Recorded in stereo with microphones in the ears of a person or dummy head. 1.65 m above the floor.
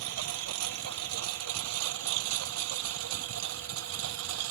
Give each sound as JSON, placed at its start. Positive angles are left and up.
{"t": 0.0, "sound": "a lawn mower", "side_deg": -80}